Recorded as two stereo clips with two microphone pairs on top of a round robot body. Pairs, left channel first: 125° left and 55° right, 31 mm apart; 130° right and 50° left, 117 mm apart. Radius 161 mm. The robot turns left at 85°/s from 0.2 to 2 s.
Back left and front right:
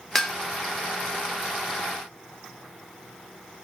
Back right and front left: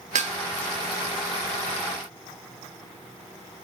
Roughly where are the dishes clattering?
Ahead left.